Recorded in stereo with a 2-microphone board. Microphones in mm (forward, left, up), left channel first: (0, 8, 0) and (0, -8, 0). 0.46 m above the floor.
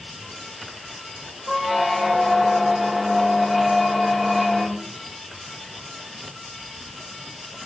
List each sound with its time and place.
1.5 s a squeak: 10° right (ahead or behind), 1.8 m